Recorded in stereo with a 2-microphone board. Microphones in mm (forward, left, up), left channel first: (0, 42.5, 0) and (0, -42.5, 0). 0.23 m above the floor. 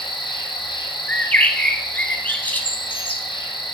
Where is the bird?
20° left (ahead or behind), 0.6 m.